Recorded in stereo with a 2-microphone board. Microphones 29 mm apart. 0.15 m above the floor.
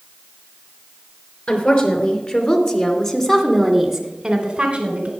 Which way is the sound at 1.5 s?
45° left (ahead or behind).